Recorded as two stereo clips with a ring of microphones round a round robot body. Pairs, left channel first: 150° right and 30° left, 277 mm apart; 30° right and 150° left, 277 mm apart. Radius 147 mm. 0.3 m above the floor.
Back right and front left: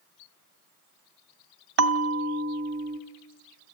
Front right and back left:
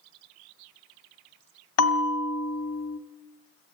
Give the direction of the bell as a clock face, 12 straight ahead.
12 o'clock.